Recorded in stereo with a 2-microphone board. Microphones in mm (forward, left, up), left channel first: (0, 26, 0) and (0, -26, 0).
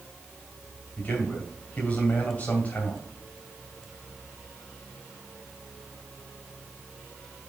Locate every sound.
1.0 s a man speaking: 30° left (ahead or behind), 2.5 m